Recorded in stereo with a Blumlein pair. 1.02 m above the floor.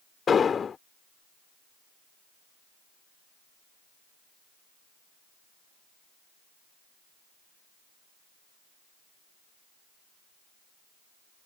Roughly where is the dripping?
I don't hear dripping.